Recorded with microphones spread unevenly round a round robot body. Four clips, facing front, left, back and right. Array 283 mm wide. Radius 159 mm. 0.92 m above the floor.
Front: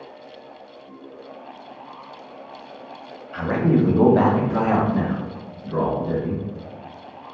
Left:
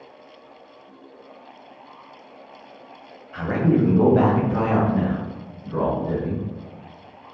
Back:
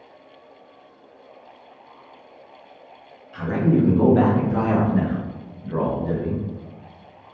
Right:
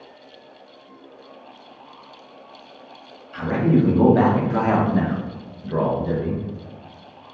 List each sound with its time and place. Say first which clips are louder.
3.3 s a man speaking: right 1 dB, front 1 dB; 15° left, 1.1 m; by 6.4 s 100° right, 1.3 m